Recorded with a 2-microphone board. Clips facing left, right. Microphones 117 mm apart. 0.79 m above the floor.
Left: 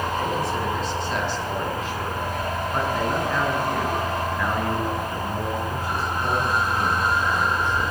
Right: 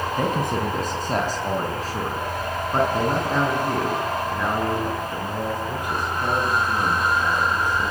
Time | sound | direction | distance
0.2 | a man speaking | 50° right (ahead or behind) | 5 m